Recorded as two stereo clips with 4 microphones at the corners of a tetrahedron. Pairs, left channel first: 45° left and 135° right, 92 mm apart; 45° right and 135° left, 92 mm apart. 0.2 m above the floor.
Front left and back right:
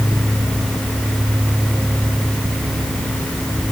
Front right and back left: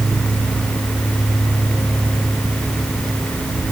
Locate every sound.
Only background noise.